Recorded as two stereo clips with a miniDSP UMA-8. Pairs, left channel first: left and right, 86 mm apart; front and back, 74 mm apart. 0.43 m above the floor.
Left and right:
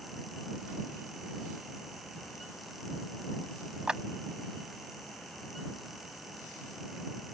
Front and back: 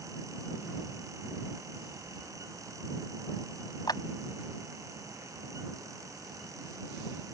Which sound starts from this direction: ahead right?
Keys jangling, at 2.0 s.